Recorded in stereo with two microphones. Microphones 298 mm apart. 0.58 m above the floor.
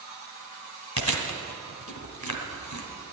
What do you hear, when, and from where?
1.0 s chewing: 70° left (ahead or behind), 1.6 m